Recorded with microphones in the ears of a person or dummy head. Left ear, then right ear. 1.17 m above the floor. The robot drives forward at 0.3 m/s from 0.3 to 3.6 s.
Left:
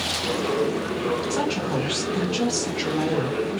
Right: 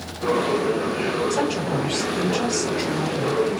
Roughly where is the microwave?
I don't hear a microwave.